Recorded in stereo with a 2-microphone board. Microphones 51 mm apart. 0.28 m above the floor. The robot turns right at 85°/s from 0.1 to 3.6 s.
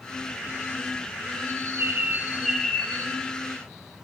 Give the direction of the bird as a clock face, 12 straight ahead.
3 o'clock.